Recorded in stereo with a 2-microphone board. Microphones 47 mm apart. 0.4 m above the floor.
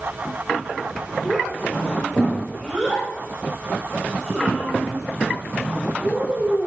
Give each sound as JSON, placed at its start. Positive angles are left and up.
{"t": 1.2, "sound": "a child speaking", "side_deg": 5, "distance_m": 6.5}